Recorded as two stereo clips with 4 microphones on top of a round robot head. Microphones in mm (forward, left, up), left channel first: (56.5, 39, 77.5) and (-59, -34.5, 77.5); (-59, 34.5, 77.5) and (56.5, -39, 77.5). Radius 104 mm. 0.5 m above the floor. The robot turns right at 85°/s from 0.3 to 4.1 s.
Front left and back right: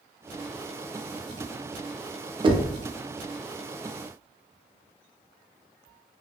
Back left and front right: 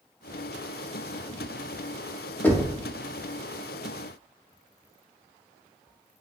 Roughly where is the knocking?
Behind right.